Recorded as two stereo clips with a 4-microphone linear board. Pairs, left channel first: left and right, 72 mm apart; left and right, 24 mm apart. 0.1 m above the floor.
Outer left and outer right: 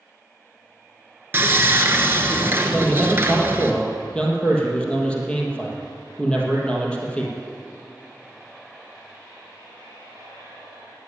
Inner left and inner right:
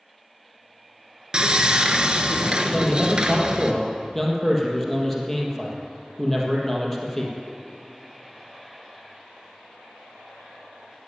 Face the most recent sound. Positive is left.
turn(degrees=15)  # may be behind; listen again after turning